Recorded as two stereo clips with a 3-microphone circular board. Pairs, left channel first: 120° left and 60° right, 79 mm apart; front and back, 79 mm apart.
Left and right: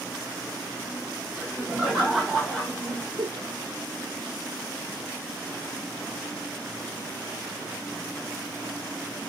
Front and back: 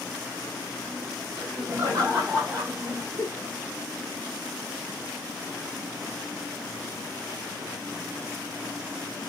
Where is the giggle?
45° right, 0.7 m.